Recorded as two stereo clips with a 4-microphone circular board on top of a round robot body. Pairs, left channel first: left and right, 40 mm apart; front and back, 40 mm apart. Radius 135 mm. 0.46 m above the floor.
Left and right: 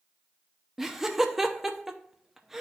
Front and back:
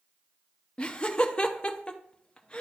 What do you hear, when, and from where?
0.8 s laughter: 15° right, 0.7 m